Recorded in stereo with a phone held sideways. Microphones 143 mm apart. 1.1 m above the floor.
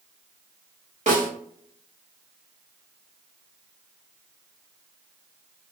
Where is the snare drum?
55° right (ahead or behind), 1.5 m.